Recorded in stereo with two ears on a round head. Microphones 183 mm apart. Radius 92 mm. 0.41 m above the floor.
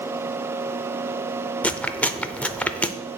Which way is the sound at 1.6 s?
5° left (ahead or behind).